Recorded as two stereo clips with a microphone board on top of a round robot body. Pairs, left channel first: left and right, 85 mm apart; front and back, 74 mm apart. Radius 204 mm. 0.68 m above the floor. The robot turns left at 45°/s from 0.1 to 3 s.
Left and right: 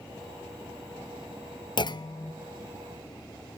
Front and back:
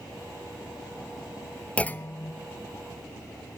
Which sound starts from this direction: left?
A clunk, at 1.8 s.